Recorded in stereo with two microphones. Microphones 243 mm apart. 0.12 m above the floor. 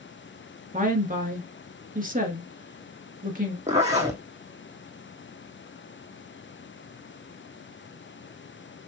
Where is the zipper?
30° right (ahead or behind), 1.5 m.